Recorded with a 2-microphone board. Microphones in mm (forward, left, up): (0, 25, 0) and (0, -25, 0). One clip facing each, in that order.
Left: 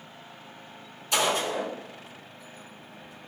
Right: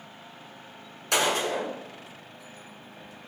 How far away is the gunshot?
About 1.4 m.